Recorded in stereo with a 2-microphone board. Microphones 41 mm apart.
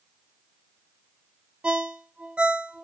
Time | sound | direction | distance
1.6 | a ringtone | 25° right (ahead or behind) | 0.6 m